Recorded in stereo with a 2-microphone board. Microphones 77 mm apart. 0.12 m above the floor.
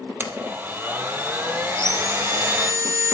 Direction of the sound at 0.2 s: 25° right (ahead or behind).